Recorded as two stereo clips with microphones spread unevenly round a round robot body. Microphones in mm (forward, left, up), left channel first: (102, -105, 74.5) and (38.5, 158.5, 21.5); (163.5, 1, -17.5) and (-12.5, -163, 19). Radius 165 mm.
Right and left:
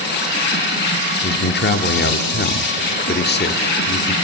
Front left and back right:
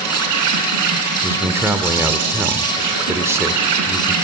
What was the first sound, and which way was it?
An insect, 140° right.